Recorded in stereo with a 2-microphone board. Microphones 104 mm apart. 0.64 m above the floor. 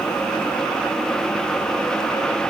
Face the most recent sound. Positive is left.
No sound to turn to.